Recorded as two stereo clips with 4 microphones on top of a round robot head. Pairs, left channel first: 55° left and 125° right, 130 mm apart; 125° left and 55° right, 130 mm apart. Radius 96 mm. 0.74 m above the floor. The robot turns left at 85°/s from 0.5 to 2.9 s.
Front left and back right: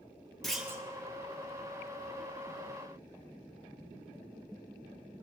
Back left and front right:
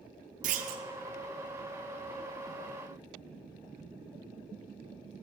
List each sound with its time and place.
0.4 s a clunk: 30° right, 0.7 m; by 0.8 s 60° right, 0.7 m